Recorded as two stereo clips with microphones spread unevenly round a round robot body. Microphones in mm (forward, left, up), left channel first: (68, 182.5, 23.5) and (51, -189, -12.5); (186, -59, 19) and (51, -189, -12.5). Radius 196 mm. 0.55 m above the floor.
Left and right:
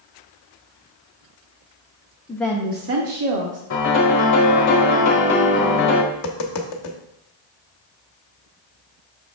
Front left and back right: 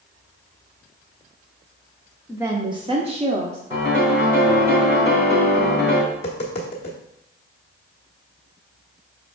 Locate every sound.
2.3 s a woman speaking: 165° left, 0.7 m; by 3.6 s 90° right, 1.2 m
3.7 s a piano: 140° left, 1.0 m
6.1 s tapping: 100° left, 1.0 m